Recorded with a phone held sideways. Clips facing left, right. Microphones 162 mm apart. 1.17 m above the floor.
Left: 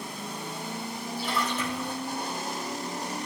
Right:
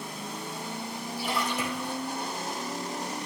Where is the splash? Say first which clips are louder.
Even; 10° right (ahead or behind), 2 m.